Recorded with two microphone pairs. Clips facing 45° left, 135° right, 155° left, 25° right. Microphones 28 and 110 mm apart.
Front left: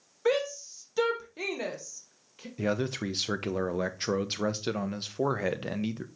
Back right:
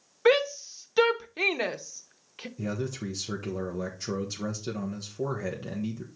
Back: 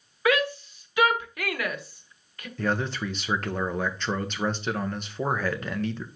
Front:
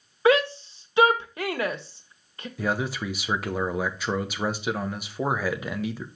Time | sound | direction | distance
0.2 | a shout | 90° right | 1.0 m
2.6 | a man speaking | 55° left | 0.9 m